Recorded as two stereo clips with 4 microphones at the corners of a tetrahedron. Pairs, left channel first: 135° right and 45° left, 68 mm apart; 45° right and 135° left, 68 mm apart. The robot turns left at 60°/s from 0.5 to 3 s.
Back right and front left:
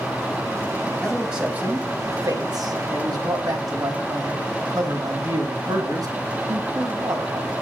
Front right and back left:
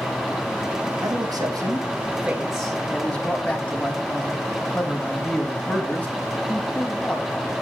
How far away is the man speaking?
About 4 m.